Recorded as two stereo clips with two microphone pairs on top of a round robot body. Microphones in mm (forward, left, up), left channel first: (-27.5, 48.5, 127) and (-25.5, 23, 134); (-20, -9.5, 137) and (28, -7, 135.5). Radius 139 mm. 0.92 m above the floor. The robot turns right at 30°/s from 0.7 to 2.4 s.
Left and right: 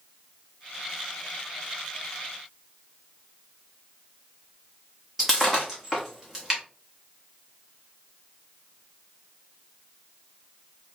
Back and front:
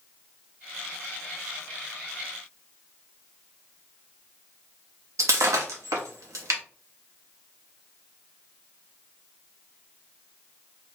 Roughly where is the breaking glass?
Ahead.